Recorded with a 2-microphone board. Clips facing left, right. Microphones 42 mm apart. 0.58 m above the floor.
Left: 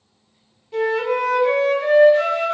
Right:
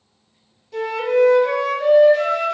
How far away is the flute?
About 1.1 m.